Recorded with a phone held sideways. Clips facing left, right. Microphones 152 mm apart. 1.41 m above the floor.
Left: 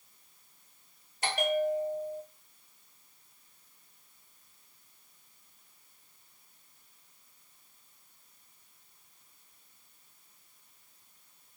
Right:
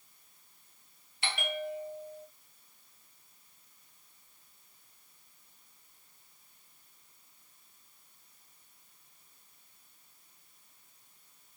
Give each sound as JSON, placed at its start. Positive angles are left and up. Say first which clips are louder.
{"t": 1.2, "sound": "a bell", "louder": "left 8 dB", "side_deg": 40, "distance_m": 0.6}